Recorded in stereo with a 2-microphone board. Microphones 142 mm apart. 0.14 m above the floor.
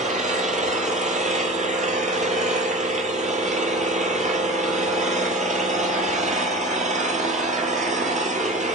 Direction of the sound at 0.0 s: 60° right (ahead or behind).